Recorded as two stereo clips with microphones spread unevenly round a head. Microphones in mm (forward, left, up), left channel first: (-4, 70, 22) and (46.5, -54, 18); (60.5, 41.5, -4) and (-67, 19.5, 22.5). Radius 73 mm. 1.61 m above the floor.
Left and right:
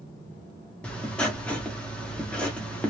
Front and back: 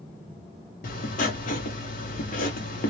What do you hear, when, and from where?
0.8 s writing: 35° left, 0.9 m